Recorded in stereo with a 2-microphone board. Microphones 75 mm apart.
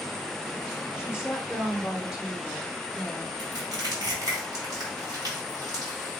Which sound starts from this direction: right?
Crushing, at 3.4 s.